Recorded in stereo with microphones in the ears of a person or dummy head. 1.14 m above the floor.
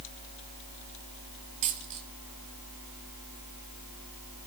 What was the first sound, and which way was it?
A dropped coin, 35° right (ahead or behind).